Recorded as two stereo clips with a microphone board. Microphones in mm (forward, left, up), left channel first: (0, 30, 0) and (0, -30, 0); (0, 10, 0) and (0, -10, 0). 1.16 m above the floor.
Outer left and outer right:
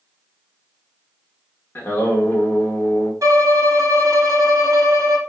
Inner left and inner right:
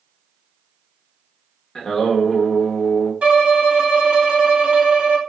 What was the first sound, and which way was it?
Singing, 35° left (ahead or behind).